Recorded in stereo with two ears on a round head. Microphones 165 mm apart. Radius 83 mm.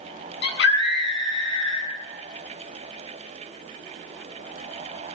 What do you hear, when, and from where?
0.4 s a scream: 65° left (ahead or behind), 8 m